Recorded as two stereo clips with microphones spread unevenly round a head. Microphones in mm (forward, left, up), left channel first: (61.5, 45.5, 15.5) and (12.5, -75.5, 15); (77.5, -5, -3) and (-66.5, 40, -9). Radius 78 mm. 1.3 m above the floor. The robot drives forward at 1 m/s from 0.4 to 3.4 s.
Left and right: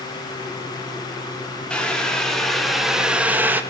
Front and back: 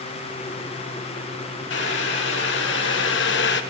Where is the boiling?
15° right, 3 m; by 3.6 s 35° right, 1.2 m.